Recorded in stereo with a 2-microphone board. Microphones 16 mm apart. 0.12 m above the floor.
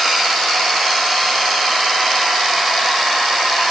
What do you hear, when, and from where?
Only background noise.